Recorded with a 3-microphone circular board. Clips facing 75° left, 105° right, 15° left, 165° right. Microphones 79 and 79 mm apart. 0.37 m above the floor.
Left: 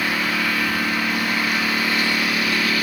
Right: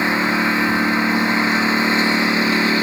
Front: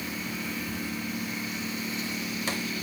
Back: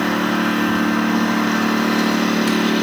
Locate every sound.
0.0 s a lawn mower: 170° right